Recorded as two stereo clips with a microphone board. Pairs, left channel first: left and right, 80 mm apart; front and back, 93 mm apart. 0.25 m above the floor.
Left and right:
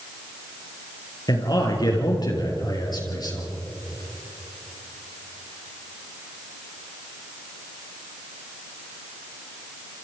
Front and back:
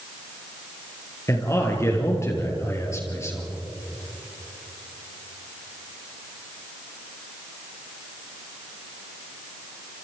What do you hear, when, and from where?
1.3 s a man speaking: 60° left, 5 m